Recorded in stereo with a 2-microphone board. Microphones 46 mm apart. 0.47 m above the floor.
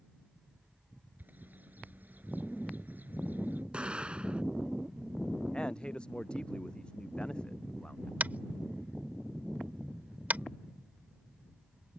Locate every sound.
1.2 s a bird: 40° right (ahead or behind)
3.7 s an explosion: 25° right (ahead or behind)
5.5 s a man speaking: 20° left (ahead or behind)
8.2 s tapping: 40° right (ahead or behind)